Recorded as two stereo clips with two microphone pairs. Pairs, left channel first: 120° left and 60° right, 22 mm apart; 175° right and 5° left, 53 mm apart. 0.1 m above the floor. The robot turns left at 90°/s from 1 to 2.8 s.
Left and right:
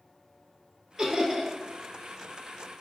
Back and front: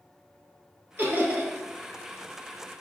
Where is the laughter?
Straight ahead, 1.3 m; by 1.5 s 45° right, 1.3 m.